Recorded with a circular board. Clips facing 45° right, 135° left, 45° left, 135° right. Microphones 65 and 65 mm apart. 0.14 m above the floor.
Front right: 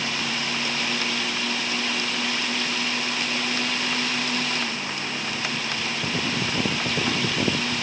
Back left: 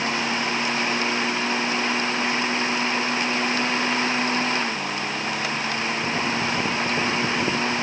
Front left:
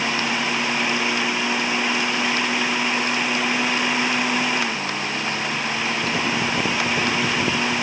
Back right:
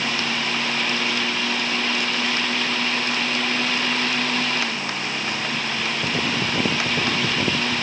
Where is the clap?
No clap in this recording.